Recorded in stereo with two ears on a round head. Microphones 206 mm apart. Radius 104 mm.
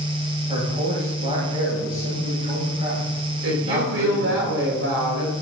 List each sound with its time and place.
0.5 s a man speaking: 30° right (ahead or behind), 9 m
3.4 s a woman speaking: 60° right (ahead or behind), 5 m